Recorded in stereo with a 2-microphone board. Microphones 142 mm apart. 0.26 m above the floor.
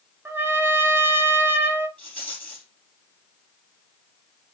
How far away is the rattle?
About 3 m.